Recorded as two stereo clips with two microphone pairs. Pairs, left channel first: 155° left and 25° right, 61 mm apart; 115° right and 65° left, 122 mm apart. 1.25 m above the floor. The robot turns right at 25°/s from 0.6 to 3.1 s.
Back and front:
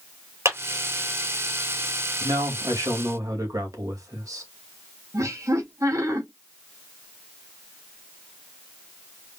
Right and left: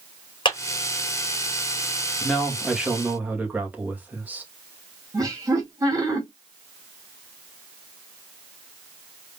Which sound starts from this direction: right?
A clap, at 0.5 s.